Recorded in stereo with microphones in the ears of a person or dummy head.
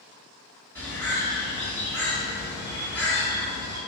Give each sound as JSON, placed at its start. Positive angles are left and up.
{"t": 0.8, "sound": "a bird", "side_deg": -15, "distance_m": 1.6}